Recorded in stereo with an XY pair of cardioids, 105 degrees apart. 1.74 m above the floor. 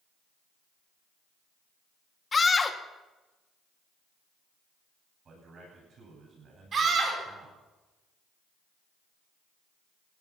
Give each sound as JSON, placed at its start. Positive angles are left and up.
{"t": 2.3, "sound": "a scream", "azimuth_deg": 30, "distance_m": 1.5}
{"t": 5.2, "sound": "a man speaking", "azimuth_deg": -50, "distance_m": 10.0}
{"t": 6.7, "sound": "a scream", "azimuth_deg": -50, "distance_m": 7.5}